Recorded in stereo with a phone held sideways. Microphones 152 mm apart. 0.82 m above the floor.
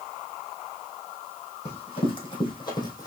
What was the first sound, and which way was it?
Running footsteps, 40° left (ahead or behind).